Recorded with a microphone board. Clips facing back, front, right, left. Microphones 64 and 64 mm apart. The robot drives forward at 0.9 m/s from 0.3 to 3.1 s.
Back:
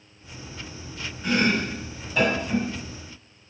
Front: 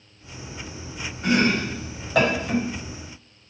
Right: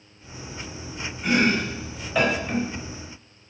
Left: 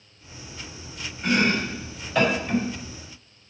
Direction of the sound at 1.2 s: 5° right.